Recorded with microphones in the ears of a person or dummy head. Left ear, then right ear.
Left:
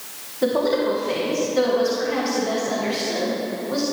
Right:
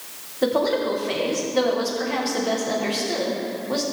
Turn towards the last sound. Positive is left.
turn(degrees=-20)  # may be behind; listen again after turning